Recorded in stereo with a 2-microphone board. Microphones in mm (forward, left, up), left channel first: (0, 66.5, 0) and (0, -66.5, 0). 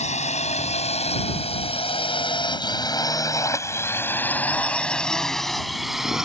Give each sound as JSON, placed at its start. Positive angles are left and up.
{"t": 0.0, "sound": "a drone", "side_deg": 65}